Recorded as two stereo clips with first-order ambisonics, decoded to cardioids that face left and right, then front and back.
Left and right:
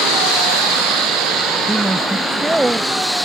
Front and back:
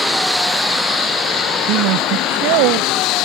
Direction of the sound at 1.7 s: 175° right.